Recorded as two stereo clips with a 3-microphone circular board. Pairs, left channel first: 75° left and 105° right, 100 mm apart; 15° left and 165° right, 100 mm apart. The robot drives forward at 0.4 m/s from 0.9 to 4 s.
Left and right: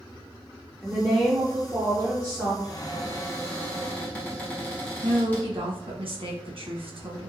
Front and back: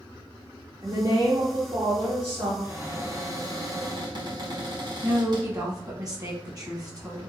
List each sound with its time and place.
0.8 s a woman speaking: 175° left, 0.6 m; by 2.5 s straight behind, 1.1 m
2.6 s a cupboard door: 125° left, 0.7 m; by 5.5 s 150° left, 1.1 m
5.0 s a woman speaking: 115° right, 0.9 m